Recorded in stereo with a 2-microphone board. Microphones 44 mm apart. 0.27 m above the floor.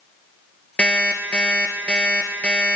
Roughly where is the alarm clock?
Left.